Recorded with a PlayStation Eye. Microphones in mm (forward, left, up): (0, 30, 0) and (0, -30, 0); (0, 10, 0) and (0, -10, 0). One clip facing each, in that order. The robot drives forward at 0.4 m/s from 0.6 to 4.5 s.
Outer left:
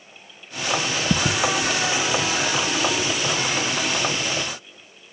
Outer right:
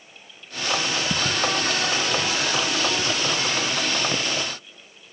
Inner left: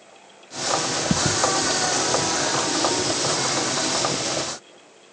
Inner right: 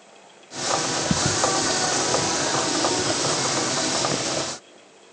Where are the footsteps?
65° left (ahead or behind); by 4.5 s 60° right (ahead or behind).